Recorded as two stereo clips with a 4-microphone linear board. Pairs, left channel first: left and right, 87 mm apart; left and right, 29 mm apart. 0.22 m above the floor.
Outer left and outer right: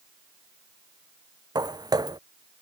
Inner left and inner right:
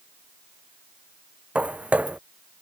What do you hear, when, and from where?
1.6 s footsteps: 50° right (ahead or behind)